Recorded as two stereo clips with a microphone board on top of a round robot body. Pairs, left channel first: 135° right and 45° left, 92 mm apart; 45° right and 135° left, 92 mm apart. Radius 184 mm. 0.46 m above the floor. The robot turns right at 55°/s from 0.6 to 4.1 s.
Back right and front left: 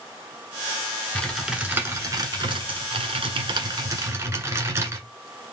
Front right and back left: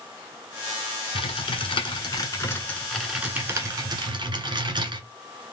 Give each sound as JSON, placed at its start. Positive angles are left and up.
{"t": 1.1, "sound": "typing on a keyboard", "azimuth_deg": -60, "distance_m": 1.8}